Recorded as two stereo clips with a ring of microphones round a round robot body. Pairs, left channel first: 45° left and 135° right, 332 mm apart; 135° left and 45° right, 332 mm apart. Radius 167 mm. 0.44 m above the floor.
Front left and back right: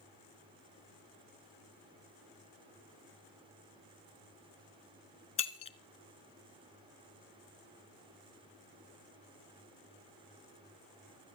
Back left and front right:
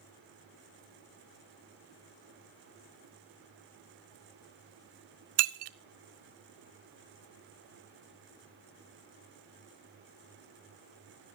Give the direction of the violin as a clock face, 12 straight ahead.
I don't hear a violin.